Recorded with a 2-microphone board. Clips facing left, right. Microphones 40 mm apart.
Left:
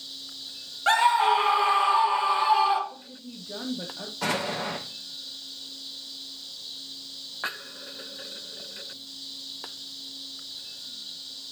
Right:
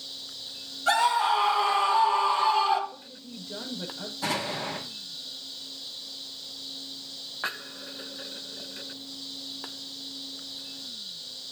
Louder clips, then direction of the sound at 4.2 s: Left 2 dB; 75° left (ahead or behind).